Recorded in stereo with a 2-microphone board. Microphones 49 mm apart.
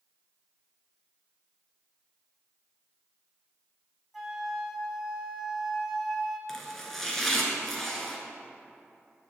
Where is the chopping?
5° left (ahead or behind), 1.4 m.